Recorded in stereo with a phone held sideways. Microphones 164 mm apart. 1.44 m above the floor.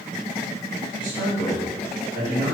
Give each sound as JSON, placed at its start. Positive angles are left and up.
{"t": 1.0, "sound": "a man speaking", "side_deg": 30, "distance_m": 1.7}